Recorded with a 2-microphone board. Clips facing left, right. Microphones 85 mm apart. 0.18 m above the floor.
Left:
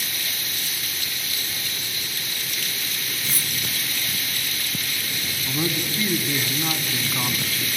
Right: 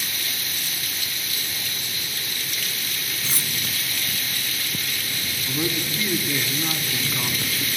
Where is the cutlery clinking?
30° right (ahead or behind), 0.7 m.